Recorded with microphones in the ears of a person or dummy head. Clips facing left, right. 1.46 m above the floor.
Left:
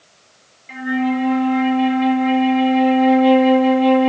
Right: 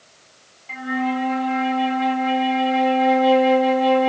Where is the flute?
20° left (ahead or behind), 2.0 m.